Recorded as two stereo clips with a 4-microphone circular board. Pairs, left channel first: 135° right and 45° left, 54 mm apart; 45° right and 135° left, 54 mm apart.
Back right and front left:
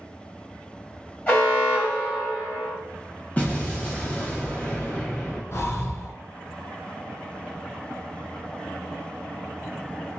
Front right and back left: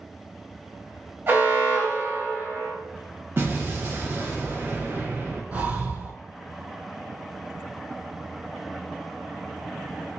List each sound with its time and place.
1.3 s an alarm: 165° left, 2.0 m
3.4 s an explosion: 165° left, 0.9 m
5.5 s breathing: 165° right, 0.5 m